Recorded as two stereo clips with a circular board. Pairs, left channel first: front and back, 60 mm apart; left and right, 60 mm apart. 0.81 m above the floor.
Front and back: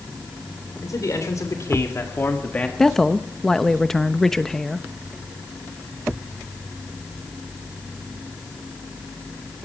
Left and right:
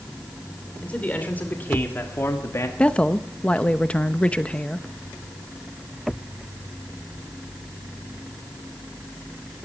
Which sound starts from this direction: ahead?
A man speaking, at 0.8 s.